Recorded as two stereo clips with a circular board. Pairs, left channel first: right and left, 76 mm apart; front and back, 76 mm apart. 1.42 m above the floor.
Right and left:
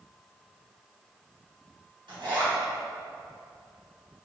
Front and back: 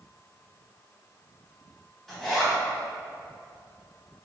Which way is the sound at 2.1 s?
90° left.